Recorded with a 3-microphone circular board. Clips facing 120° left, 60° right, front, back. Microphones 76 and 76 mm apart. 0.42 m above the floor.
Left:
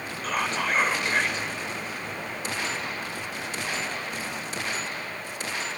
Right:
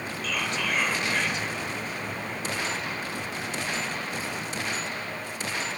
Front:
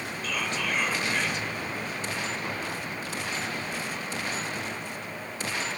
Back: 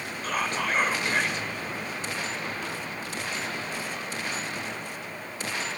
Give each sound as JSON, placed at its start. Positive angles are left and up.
{"t": 0.2, "sound": "whispering", "azimuth_deg": 155, "distance_m": 1.5}